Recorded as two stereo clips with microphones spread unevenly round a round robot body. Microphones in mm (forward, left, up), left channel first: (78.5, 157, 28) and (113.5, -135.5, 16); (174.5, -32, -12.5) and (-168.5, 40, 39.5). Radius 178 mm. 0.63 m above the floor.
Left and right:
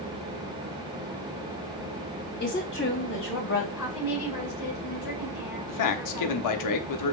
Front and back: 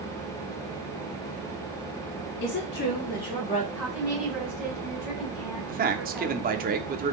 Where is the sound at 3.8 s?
85° left, 4 m.